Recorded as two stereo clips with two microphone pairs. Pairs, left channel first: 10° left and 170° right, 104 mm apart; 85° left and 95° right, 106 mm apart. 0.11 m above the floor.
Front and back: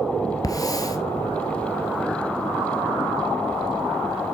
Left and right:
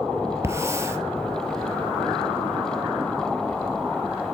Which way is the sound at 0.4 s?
35° right.